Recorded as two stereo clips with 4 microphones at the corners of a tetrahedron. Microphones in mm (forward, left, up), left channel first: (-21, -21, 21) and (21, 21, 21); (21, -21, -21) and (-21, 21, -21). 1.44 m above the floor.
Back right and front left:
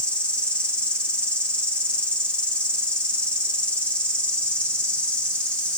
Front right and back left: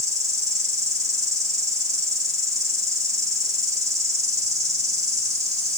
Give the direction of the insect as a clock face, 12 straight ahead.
7 o'clock.